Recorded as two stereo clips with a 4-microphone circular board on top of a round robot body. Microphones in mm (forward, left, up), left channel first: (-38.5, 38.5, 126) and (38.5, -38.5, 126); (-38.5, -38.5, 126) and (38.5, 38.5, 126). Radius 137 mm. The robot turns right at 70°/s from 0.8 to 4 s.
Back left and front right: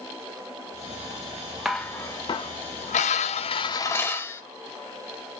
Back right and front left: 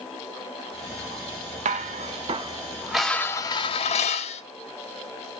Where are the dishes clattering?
40° left, 0.6 m; by 4.4 s 155° right, 0.6 m.